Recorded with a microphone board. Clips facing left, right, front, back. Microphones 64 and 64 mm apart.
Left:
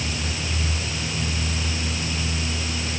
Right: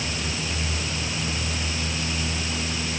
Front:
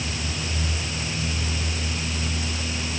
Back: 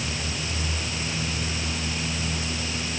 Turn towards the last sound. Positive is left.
No sound to turn to.